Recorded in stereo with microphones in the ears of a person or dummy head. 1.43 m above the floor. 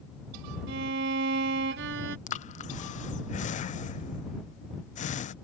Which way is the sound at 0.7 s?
70° right (ahead or behind).